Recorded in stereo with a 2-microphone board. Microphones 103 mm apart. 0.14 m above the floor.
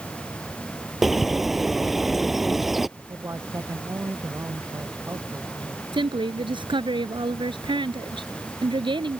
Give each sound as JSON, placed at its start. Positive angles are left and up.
{"t": 1.0, "sound": "a bird", "side_deg": 0}
{"t": 3.0, "sound": "a man speaking", "side_deg": -25}
{"t": 5.9, "sound": "a woman speaking", "side_deg": -50}